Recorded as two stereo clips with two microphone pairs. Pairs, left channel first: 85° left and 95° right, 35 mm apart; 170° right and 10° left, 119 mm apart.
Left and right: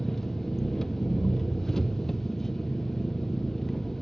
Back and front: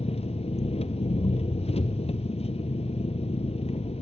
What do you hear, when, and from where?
0.0 s an engine running: 160° left, 1.0 m